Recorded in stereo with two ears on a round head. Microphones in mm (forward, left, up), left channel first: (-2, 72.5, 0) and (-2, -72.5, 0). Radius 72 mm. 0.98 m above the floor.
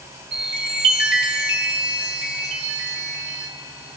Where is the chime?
75° right (ahead or behind), 2.5 m.